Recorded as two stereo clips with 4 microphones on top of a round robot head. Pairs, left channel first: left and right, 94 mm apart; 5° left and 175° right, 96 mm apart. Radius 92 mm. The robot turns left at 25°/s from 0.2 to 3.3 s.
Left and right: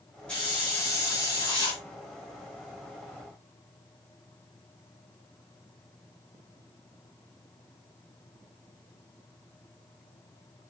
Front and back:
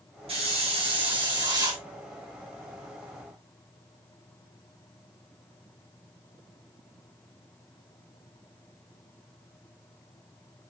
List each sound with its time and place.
0.3 s a hiss: 170° left, 3 m; by 1.8 s 130° left, 3 m